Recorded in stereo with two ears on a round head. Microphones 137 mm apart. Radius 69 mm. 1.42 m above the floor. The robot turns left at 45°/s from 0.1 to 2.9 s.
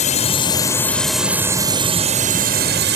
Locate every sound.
0.0 s a drone: 45° left; by 3.0 s 80° right